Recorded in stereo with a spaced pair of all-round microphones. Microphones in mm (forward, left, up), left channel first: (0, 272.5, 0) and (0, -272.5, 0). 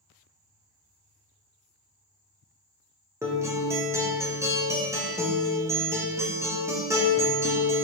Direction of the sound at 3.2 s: 5° right (ahead or behind).